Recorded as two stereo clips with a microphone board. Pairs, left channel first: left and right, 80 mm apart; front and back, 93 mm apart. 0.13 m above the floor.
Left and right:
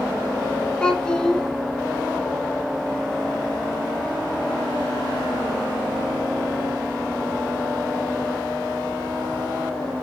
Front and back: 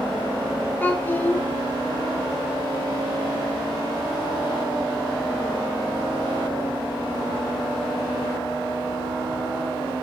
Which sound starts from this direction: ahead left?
A child speaking, at 0.8 s.